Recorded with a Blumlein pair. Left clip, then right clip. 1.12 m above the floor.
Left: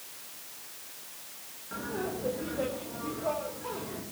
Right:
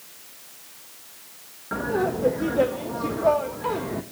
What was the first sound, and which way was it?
Laughter, 30° right.